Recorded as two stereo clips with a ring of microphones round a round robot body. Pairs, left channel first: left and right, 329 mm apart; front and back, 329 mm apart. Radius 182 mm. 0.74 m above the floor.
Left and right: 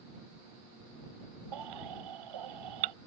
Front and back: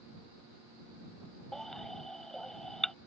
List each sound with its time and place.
1.5 s a baby crying: 90° right